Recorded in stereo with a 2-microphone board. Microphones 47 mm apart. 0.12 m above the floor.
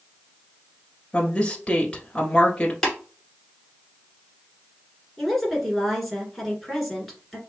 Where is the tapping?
10° left (ahead or behind), 1.7 m.